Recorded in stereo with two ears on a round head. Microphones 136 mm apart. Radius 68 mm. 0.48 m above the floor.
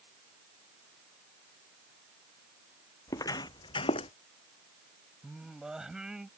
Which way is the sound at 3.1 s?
20° left (ahead or behind).